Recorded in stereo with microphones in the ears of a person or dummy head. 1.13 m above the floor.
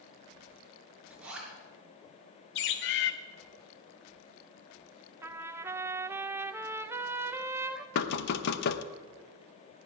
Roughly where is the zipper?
Centre.